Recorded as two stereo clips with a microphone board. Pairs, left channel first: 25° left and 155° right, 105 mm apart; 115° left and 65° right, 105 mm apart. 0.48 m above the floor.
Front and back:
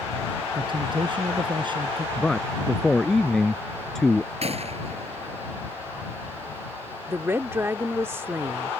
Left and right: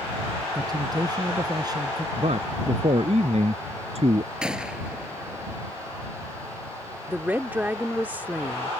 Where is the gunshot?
150° right.